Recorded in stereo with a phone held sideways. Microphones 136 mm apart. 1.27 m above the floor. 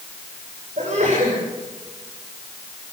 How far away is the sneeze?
About 7 m.